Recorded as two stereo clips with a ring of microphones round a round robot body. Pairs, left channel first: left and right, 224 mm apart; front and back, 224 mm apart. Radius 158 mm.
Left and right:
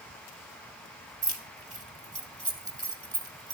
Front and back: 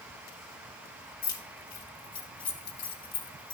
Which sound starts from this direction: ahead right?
Keys jangling, at 1.2 s.